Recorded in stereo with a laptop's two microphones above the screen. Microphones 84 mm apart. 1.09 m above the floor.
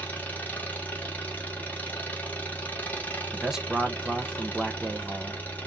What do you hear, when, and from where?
0.0 s an engine running: 20° left (ahead or behind), 1.3 m
3.3 s a man speaking: 5° right (ahead or behind), 0.8 m